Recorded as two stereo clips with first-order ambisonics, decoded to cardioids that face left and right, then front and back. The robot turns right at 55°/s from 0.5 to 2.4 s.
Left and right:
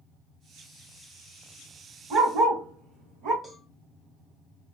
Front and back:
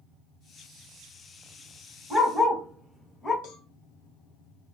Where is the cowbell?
5° left, 0.7 m.